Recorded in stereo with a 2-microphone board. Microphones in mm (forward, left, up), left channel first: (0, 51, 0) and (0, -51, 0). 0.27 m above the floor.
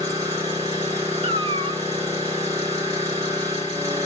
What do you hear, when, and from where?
0.0 s an engine running: 30° right (ahead or behind), 8 m
1.2 s a cat meowing: 70° right (ahead or behind), 1.6 m